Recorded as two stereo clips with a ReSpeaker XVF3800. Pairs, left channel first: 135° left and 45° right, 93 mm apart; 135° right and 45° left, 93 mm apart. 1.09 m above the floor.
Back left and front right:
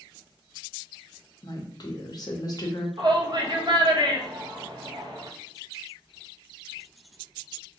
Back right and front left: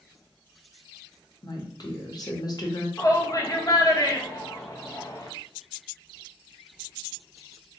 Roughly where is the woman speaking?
Behind.